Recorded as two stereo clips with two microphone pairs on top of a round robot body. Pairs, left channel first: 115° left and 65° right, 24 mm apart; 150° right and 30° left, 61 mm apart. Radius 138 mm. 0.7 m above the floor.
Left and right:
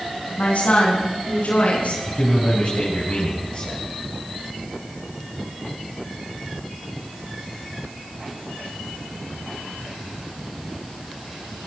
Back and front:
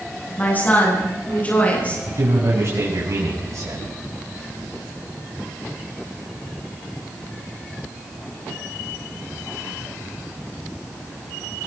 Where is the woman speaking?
150° left, 9.5 m; by 2.0 s 145° left, 11 m.